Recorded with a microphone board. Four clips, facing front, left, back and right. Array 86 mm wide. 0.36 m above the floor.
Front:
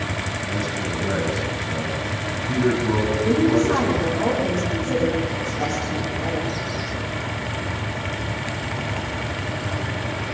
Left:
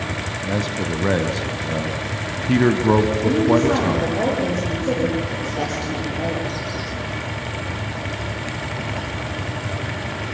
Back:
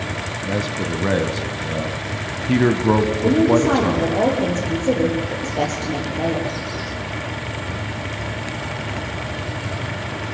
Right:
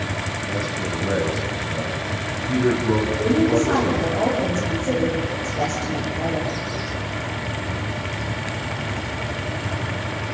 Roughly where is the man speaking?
Behind left.